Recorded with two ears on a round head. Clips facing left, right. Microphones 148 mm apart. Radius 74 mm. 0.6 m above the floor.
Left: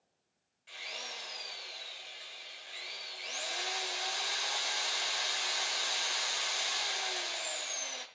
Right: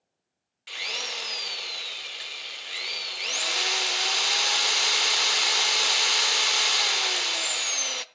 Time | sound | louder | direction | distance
0.7 | a drill | right 8 dB | 75° right (ahead or behind) | 0.7 m